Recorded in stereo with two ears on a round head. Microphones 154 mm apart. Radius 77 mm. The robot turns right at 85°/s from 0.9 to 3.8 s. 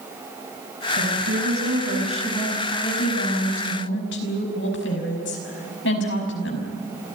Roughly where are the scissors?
I don't hear scissors.